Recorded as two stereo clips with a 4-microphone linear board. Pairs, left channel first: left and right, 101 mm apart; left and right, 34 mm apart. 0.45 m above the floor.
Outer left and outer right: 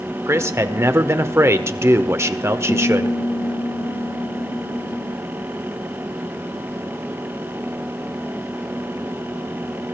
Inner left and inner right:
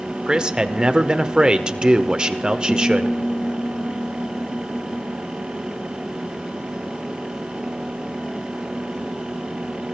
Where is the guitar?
60° left (ahead or behind), 2.5 m.